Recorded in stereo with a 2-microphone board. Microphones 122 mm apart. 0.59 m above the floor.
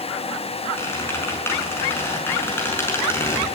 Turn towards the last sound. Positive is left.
turn(degrees=20)  # may be behind; listen again after turning